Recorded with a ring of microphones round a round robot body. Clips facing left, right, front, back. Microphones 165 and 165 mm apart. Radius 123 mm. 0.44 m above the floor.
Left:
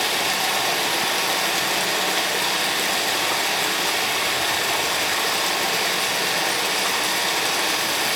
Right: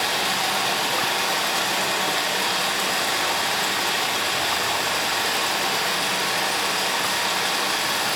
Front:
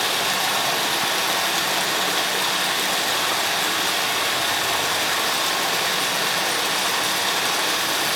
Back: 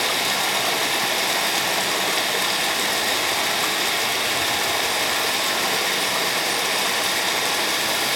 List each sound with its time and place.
0.0 s running water: 125° left, 0.9 m